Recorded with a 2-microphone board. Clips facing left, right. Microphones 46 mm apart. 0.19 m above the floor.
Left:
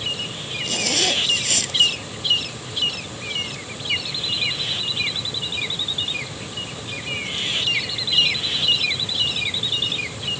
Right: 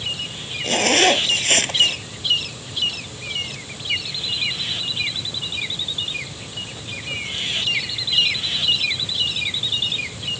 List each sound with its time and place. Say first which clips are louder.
0.6 s a zipper: right 7 dB; 45° right (ahead or behind)